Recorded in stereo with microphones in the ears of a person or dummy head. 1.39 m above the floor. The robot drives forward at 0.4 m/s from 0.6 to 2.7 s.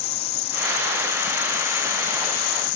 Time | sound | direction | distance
0.0 | an insect | 35° left (ahead or behind) | ?